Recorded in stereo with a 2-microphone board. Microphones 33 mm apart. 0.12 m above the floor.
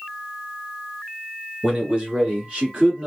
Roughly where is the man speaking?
Right.